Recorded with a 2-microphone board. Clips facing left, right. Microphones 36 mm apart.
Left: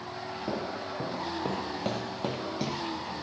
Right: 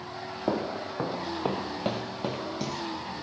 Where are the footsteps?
40° right (ahead or behind), 1.7 m; by 2.9 s 20° left (ahead or behind), 1.1 m.